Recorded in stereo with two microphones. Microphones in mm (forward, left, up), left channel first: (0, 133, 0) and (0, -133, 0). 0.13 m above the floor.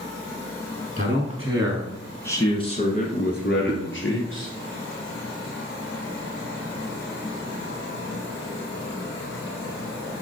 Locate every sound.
1.0 s a man speaking: 35° right (ahead or behind), 1.7 m; by 4.5 s 50° left (ahead or behind), 3 m
3.7 s a whoosh: 15° left (ahead or behind), 1.1 m